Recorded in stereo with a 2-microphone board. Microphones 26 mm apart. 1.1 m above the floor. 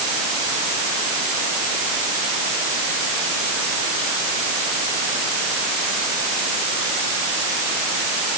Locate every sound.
Only background noise.